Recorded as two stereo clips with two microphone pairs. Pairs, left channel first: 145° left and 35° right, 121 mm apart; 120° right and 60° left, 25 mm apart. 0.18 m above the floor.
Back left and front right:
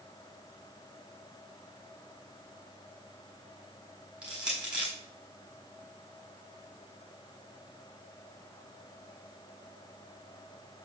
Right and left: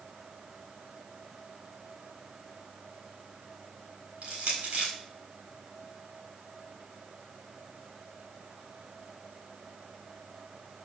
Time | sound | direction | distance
4.2 | crushing | 45° left | 4.5 m